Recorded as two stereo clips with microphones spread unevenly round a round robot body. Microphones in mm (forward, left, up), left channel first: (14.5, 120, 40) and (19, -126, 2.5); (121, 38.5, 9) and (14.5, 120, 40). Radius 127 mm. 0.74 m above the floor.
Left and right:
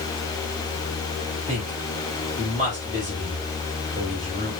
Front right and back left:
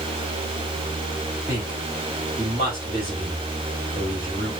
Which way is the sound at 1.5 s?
150° right.